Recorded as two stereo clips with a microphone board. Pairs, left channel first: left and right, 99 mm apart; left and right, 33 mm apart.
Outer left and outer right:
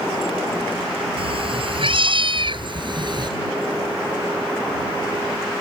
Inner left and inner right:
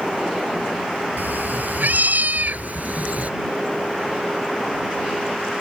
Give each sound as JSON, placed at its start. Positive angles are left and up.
{"t": 1.2, "sound": "a cat meowing", "side_deg": -65}